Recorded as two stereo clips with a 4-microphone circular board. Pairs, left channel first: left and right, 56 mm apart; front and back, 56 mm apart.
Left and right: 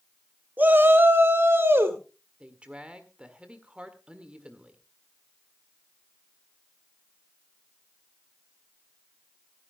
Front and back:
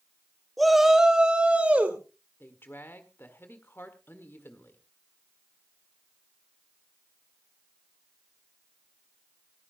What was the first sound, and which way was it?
A shout, 85° right.